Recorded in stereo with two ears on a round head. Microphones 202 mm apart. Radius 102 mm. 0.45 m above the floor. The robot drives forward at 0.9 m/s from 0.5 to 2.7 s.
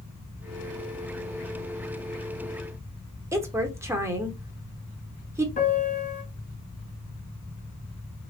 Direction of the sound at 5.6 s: 35° left (ahead or behind).